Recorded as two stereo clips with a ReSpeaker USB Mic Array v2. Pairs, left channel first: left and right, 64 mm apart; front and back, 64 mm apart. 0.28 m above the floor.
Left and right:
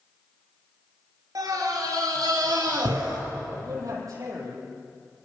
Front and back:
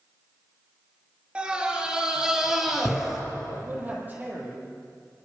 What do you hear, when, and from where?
1.4 s a scream: 110° right, 5 m; by 3.2 s 95° right, 7 m
3.5 s a man speaking: 120° right, 9.5 m